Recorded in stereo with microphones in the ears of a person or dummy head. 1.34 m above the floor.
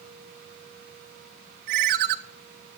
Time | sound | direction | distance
1.7 | a ringtone | 55° right (ahead or behind) | 0.6 m